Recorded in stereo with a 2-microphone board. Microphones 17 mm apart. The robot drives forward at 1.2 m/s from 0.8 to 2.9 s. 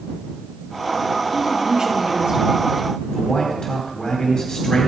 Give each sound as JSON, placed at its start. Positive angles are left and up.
{"t": 1.3, "sound": "a woman speaking", "side_deg": -35, "distance_m": 4.5}
{"t": 3.1, "sound": "a man speaking", "side_deg": 40, "distance_m": 2.5}